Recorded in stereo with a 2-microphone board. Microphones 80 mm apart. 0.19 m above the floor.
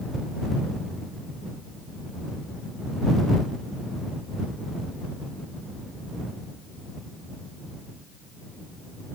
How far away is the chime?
I don't hear a chime.